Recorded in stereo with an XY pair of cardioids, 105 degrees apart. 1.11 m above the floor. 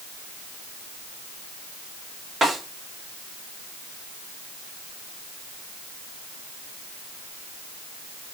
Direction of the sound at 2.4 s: 35° right.